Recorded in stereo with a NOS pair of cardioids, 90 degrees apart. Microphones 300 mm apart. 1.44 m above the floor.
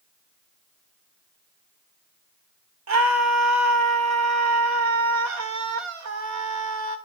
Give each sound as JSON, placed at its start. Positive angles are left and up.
{"t": 2.9, "sound": "a scream", "azimuth_deg": -65, "distance_m": 4.0}